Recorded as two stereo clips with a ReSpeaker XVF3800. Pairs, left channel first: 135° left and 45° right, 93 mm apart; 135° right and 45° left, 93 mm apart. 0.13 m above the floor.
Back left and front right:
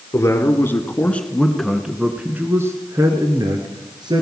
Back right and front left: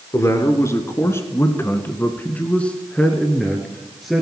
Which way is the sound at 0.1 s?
Straight behind.